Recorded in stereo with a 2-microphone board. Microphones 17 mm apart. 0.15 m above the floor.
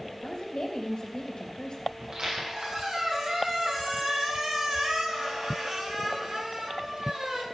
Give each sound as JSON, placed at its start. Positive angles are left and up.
{"t": 0.2, "sound": "a woman speaking", "side_deg": 55, "distance_m": 3.5}
{"t": 2.0, "sound": "a squeak", "side_deg": -55, "distance_m": 4.5}